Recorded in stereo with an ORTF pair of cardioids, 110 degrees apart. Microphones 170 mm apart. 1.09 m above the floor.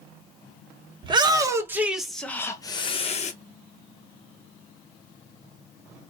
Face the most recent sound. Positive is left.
turn(degrees=45)